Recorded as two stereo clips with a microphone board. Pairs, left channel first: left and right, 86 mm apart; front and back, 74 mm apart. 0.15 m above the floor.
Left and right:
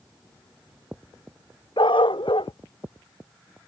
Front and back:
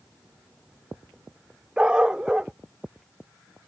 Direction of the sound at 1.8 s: 100° left.